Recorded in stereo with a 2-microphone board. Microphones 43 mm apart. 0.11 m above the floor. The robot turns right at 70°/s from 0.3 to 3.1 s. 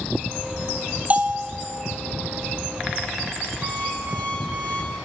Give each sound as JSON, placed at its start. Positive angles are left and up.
{"t": 1.1, "sound": "a bell", "azimuth_deg": -35, "distance_m": 0.9}
{"t": 3.6, "sound": "an alarm clock", "side_deg": -35, "distance_m": 4.5}